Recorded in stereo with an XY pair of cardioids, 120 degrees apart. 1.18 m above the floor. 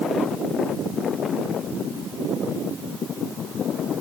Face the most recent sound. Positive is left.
No sound to turn to.